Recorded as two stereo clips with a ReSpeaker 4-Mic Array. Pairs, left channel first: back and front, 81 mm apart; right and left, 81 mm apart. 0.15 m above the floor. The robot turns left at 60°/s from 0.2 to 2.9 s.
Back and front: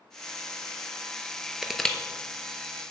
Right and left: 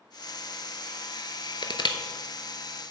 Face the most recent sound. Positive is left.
turn(degrees=-160)